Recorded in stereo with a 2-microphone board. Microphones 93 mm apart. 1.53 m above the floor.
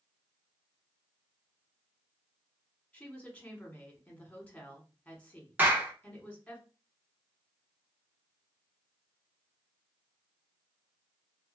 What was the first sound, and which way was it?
A woman speaking, 15° left (ahead or behind).